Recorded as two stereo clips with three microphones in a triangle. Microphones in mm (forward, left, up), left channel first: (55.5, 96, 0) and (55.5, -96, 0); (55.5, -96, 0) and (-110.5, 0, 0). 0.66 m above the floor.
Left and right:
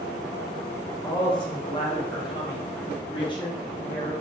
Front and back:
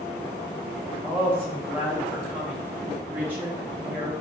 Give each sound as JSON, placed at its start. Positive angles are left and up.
{"t": 1.0, "sound": "a woman speaking", "azimuth_deg": 85, "distance_m": 0.7}